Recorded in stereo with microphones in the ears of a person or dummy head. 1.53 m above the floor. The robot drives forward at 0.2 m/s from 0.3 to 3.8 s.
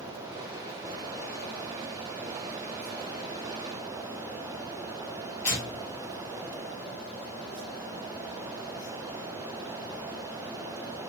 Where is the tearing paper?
Centre (ahead or behind), 0.8 m.